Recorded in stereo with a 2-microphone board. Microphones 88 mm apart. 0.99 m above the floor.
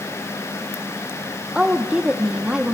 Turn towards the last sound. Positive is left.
turn(degrees=-10)  # may be behind; listen again after turning